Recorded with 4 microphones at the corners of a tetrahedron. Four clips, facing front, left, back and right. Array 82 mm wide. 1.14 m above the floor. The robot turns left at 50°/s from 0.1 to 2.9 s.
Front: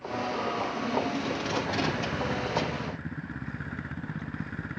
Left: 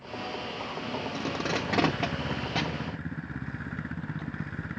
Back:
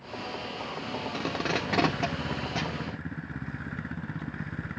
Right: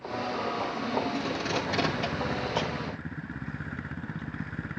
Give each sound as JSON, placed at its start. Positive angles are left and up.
{"t": 1.1, "sound": "tape being pulled", "azimuth_deg": 165, "distance_m": 3.0}